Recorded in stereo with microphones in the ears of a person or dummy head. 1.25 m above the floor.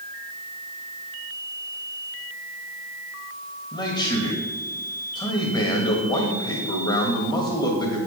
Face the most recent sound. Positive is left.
turn(degrees=25)  # may be behind; listen again after turning